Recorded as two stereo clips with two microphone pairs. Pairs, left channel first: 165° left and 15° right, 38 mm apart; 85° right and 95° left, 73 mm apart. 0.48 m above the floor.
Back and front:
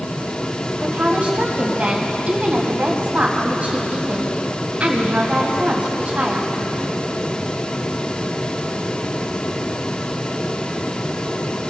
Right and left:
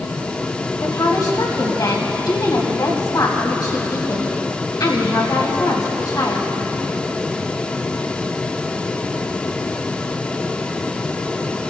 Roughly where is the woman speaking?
Ahead right.